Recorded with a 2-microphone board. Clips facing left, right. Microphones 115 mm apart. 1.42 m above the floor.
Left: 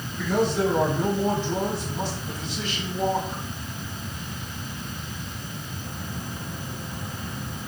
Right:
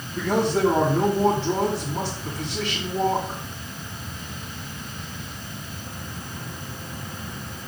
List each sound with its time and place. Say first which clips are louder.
0.1 s a man speaking: right 2 dB; 85° right, 4 m